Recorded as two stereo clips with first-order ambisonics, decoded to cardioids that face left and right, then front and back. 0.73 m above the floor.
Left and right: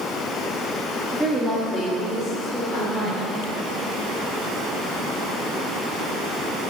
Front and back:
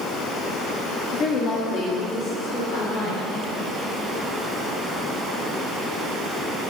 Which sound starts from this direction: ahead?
A woman speaking, at 1.1 s.